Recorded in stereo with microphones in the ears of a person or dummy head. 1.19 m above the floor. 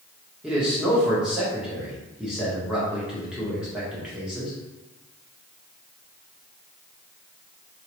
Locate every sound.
0.4 s a man speaking: 10° right (ahead or behind), 1.2 m